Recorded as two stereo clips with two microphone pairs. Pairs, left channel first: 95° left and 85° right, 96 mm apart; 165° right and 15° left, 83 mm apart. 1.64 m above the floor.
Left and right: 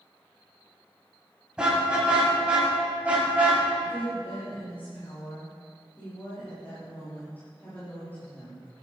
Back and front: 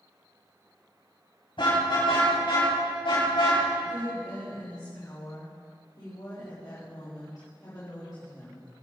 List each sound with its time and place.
1.6 s a car horn: 165° right, 6.5 m; by 3.6 s 160° right, 5.5 m
3.8 s a woman speaking: 165° left, 4.5 m